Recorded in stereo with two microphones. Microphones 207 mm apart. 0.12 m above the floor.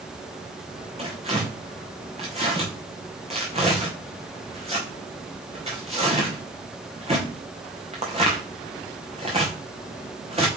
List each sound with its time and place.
1.0 s tearing paper: 30° right (ahead or behind), 3 m